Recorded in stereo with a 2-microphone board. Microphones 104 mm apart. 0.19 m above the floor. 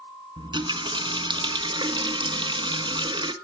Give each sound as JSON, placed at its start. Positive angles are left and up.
{"t": 0.4, "sound": "a running tap", "side_deg": -50, "distance_m": 1.2}